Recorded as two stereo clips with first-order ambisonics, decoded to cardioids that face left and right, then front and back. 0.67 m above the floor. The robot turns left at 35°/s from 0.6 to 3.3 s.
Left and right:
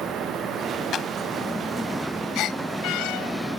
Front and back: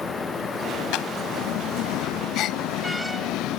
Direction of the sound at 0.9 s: 30° left.